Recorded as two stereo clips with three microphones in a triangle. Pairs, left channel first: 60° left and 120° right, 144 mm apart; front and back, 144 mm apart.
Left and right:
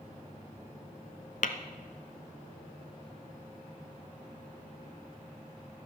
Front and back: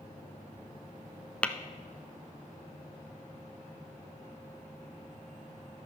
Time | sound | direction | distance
1.4 | tapping | 80° left | 0.6 m